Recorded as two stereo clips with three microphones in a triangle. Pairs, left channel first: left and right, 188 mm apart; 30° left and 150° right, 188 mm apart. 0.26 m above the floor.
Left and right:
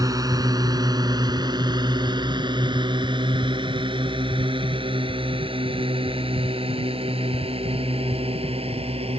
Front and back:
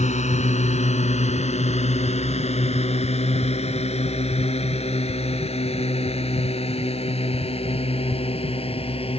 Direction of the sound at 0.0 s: 20° right.